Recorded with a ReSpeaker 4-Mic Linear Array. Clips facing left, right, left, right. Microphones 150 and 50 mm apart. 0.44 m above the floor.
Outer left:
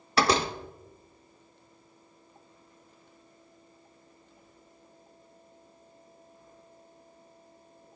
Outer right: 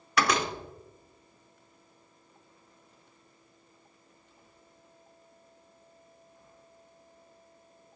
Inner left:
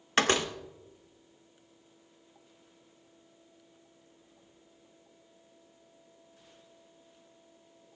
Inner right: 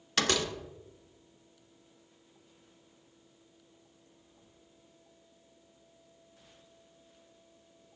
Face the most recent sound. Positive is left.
turn(degrees=30)  # may be behind; listen again after turning